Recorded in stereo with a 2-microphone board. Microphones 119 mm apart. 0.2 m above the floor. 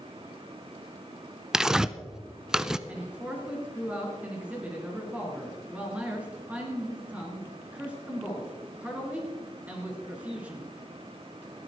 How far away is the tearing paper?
About 0.6 m.